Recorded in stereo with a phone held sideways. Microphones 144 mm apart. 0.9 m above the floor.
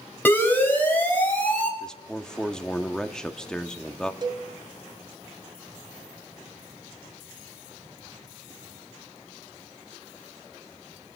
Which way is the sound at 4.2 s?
35° right (ahead or behind).